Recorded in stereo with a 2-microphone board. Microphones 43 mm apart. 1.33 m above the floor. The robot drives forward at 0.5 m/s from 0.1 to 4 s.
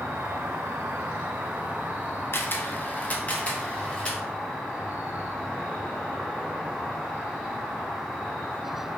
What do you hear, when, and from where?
0.0 s an insect: 70° right (ahead or behind), 0.7 m; by 9.0 s 20° right (ahead or behind), 1.8 m
2.3 s a camera shutter: 55° left (ahead or behind), 0.6 m; by 4.2 s 25° left (ahead or behind), 1.2 m